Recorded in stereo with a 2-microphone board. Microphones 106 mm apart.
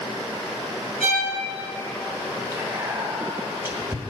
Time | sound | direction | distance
1.0 | a violin | 80° left | 3 m
2.5 | whispering | 20° right (ahead or behind) | 1.4 m